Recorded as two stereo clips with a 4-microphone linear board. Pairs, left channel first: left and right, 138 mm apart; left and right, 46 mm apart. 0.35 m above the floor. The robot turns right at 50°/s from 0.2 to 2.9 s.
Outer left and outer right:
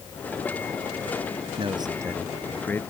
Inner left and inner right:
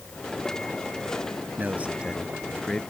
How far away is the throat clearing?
I don't hear throat clearing.